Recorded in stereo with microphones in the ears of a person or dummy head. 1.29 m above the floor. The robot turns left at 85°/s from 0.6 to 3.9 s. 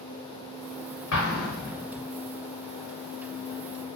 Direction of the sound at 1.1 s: 65° left (ahead or behind).